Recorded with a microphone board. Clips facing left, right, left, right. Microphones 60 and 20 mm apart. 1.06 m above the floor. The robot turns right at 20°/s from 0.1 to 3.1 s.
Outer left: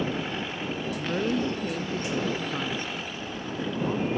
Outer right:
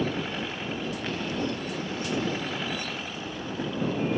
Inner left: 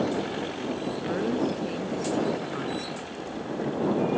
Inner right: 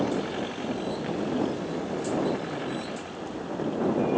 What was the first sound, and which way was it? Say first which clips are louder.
A woman speaking: outer left 7 dB, inner left 3 dB; 105° left.